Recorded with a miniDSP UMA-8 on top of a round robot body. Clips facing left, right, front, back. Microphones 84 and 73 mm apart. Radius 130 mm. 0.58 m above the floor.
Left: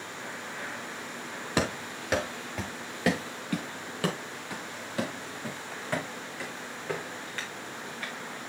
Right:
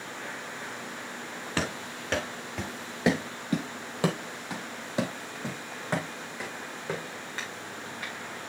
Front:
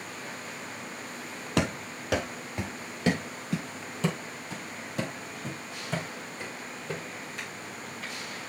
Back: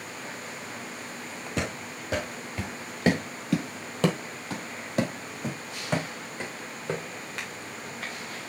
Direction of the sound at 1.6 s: 15° left.